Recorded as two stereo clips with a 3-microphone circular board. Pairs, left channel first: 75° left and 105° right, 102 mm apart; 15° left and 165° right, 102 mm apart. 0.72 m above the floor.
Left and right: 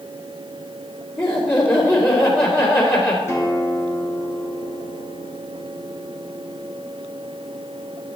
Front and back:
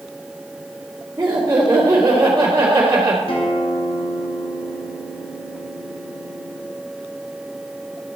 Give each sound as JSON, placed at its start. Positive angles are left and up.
{"t": 1.2, "sound": "laughter", "azimuth_deg": 130, "distance_m": 2.5}
{"t": 3.3, "sound": "a guitar", "azimuth_deg": 15, "distance_m": 1.8}